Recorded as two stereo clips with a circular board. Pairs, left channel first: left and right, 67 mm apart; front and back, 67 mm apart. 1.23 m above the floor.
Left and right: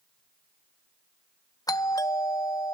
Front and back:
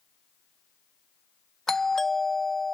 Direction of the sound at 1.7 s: 85° left.